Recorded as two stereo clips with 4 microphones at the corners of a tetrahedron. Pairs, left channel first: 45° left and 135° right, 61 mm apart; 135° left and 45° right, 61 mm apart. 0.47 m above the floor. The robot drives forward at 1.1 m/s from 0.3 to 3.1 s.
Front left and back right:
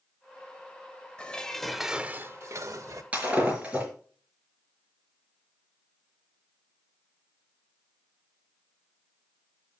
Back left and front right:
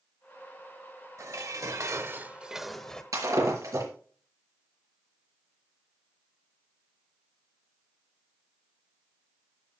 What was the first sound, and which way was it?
Dishes clattering, 25° right.